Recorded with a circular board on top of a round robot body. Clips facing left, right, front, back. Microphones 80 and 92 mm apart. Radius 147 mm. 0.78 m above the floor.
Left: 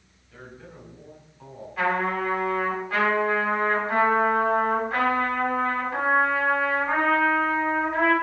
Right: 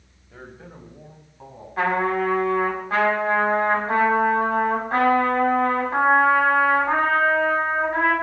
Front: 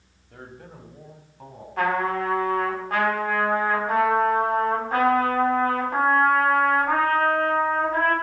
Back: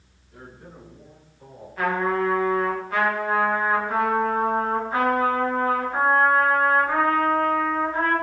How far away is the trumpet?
About 7 m.